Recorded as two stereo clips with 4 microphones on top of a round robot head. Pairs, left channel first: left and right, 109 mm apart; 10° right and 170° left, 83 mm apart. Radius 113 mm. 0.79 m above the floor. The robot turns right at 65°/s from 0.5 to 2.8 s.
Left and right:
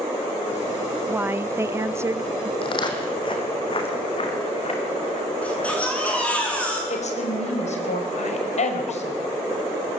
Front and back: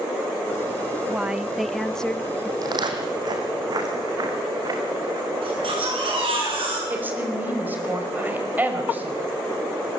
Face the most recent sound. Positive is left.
turn(degrees=105)